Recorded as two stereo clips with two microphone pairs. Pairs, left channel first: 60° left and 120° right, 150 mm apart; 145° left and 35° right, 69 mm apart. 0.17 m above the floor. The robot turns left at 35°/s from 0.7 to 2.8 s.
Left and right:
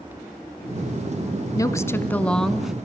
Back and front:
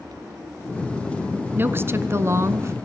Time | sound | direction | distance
1.6 | a woman speaking | 10° left | 1.3 m